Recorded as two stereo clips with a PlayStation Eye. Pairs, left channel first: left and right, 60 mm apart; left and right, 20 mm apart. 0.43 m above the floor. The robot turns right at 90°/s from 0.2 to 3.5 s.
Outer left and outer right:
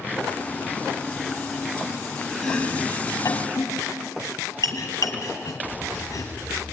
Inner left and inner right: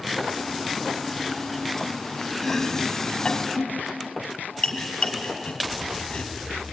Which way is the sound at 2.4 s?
5° left (ahead or behind).